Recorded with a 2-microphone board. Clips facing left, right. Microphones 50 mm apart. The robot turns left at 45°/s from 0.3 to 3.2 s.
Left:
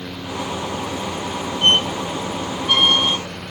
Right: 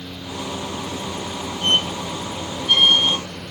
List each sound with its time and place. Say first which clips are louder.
1.6 s a squeak: left 4 dB; 50° left (ahead or behind), 0.7 m; by 3.2 s 20° right (ahead or behind), 0.7 m